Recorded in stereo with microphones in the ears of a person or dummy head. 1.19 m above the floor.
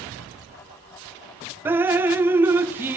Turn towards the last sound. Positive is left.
turn(degrees=-10)  # may be behind; listen again after turning